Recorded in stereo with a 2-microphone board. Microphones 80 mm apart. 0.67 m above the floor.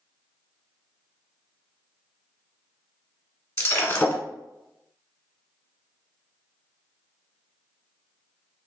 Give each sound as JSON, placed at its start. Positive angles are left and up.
{"t": 3.6, "sound": "breaking glass", "side_deg": 35, "distance_m": 0.8}